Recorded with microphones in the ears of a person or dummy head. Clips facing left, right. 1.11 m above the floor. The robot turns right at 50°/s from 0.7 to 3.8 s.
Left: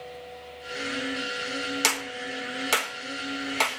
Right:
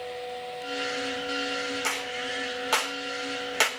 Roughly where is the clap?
Left.